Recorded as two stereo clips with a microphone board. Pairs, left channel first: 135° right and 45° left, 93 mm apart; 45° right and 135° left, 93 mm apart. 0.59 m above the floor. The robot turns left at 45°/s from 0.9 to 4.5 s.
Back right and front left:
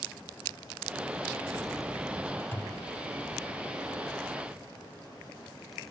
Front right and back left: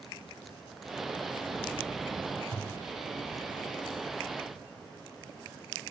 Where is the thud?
160° left; by 2.9 s 145° left.